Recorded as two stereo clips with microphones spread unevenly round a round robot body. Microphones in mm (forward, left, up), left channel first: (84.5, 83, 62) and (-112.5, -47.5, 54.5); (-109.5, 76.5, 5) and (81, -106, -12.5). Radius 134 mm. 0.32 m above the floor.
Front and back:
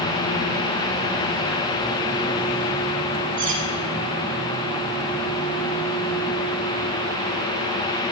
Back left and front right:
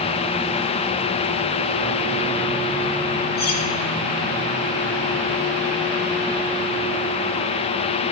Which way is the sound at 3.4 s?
155° left.